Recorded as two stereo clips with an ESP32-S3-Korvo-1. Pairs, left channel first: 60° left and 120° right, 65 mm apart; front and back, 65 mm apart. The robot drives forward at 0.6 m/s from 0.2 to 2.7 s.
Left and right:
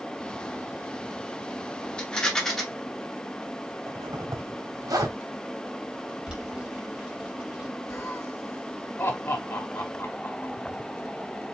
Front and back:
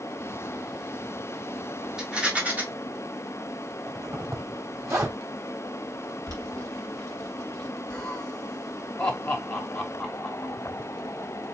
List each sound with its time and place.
2.0 s a rattle: 115° left, 1.2 m; by 2.6 s 140° left, 1.3 m
3.9 s a zipper: 135° right, 1.6 m
6.3 s boiling: 160° left, 2.5 m
7.9 s laughter: 75° left, 1.5 m